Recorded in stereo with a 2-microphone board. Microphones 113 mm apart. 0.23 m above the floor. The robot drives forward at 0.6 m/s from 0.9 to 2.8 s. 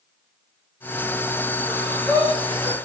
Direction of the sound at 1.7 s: 60° right (ahead or behind).